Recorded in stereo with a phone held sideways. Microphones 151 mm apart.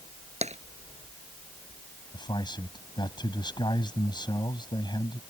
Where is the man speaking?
30° left (ahead or behind).